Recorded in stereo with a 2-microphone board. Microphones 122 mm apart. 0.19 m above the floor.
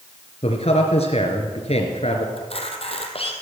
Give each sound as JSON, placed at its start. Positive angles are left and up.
{"t": 0.4, "sound": "a man speaking", "side_deg": 60, "distance_m": 3.0}
{"t": 2.4, "sound": "a camera shutter", "side_deg": 55, "distance_m": 2.0}